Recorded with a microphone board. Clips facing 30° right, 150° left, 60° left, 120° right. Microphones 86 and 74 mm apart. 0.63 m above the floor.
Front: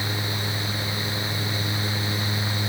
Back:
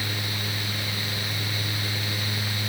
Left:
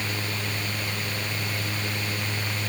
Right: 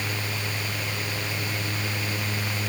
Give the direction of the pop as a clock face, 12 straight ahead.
I don't hear a pop.